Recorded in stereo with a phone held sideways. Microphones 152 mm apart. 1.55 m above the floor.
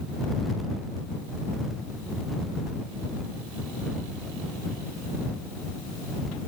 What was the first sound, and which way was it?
Only background noise.